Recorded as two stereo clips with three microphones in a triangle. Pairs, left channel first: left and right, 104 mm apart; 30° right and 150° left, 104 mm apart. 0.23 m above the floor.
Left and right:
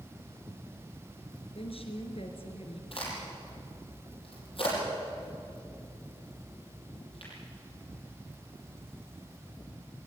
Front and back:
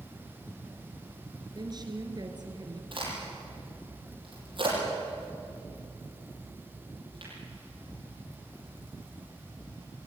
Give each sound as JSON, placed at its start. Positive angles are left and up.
{"t": 1.6, "sound": "a woman speaking", "azimuth_deg": 105, "distance_m": 3.0}
{"t": 2.9, "sound": "a crack", "azimuth_deg": 115, "distance_m": 8.0}